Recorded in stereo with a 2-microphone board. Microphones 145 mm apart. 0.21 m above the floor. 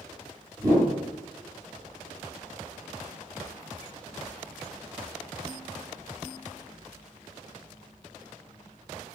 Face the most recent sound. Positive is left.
turn(degrees=-25)  # may be behind; listen again after turning